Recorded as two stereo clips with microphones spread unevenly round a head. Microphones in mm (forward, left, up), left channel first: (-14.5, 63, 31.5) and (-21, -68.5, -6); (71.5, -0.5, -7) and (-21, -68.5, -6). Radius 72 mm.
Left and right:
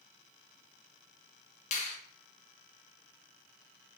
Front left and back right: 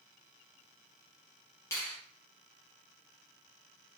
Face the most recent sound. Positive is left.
turn(degrees=90)